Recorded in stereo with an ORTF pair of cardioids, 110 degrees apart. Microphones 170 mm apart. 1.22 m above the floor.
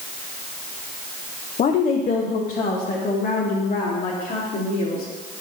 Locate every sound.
1.6 s a woman speaking: 50° left, 0.7 m; by 5.0 s 55° left, 2.5 m